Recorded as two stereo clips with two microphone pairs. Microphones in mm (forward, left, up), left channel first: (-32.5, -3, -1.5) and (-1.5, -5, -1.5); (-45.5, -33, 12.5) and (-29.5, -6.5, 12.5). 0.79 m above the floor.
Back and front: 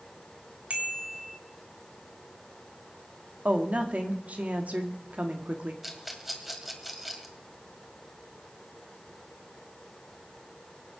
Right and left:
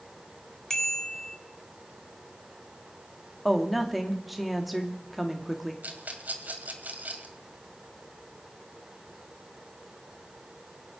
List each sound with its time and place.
0.7 s a bicycle bell: 50° right, 2.5 m
3.5 s a woman speaking: 30° right, 2.0 m
5.8 s a rattle: 80° left, 2 m